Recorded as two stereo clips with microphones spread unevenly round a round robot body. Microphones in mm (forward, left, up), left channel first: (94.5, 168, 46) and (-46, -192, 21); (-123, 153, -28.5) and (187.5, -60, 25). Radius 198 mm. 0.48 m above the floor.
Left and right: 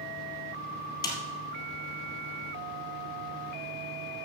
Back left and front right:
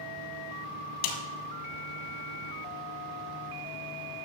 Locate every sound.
1.0 s a snare drum: 150° left, 2 m